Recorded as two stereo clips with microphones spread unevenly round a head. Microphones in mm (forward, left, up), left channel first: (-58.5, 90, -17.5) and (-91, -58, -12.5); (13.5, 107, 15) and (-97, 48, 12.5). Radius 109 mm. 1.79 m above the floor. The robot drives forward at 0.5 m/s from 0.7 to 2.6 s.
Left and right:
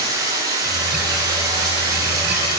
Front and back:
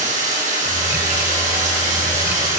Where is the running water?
170° right, 9 m.